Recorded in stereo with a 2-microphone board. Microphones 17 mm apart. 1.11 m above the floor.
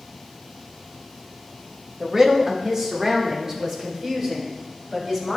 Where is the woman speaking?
25° right (ahead or behind), 1.1 m; by 5.4 s 35° right (ahead or behind), 6 m.